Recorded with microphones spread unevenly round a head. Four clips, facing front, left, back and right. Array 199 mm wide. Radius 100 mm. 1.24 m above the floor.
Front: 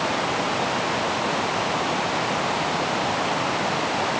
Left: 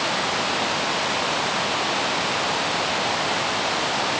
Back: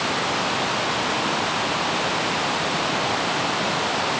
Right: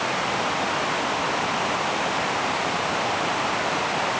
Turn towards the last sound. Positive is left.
No sound to turn to.